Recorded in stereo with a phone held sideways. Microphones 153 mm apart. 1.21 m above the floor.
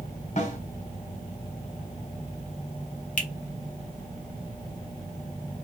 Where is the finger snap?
55° left (ahead or behind), 0.7 m.